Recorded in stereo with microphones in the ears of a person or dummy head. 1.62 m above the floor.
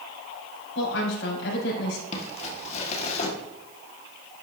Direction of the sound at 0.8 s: 70° left (ahead or behind).